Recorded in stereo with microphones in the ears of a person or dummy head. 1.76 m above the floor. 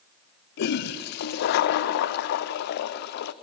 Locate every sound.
0.6 s a toilet flushing: 55° left (ahead or behind), 0.8 m